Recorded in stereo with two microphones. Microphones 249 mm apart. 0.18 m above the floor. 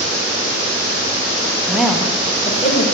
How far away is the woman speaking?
About 1.0 m.